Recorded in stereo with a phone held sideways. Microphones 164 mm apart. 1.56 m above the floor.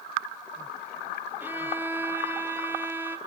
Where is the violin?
15° right (ahead or behind), 0.7 m.